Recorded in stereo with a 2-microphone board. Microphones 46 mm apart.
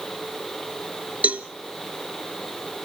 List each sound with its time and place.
1.2 s a cowbell: 35° right (ahead or behind), 0.8 m